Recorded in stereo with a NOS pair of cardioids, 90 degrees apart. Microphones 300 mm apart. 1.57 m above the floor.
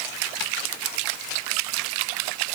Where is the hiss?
No hiss in this recording.